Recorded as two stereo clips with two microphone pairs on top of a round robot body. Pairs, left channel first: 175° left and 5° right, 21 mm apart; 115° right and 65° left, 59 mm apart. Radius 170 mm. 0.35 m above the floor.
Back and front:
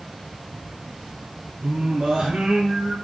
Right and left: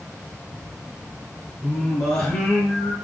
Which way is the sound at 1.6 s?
45° right.